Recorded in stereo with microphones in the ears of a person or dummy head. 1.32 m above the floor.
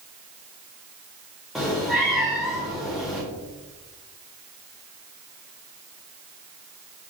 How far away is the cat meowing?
About 1.0 m.